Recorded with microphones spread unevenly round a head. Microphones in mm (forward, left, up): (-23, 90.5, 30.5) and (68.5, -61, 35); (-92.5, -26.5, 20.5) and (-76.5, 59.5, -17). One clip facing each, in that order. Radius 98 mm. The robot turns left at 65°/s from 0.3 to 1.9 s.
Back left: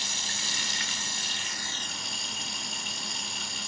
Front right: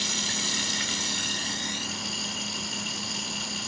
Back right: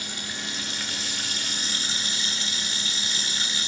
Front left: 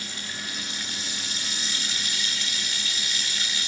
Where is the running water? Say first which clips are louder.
Front right 7 dB, back right 2 dB; 45° right; by 3.7 s 150° right.